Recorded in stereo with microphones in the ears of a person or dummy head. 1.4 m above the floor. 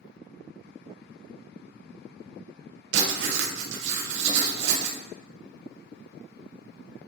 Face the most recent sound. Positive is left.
turn(degrees=-70)  # may be behind; listen again after turning